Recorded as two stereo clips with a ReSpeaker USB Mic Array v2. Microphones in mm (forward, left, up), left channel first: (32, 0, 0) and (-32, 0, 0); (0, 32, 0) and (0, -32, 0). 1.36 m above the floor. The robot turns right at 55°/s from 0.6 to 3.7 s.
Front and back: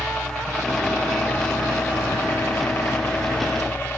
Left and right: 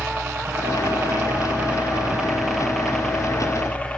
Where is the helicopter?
70° right; by 4.0 s 35° left.